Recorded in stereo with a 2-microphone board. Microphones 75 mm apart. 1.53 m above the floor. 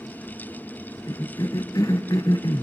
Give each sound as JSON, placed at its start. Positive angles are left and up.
{"t": 1.1, "sound": "a cough", "side_deg": 55, "distance_m": 1.0}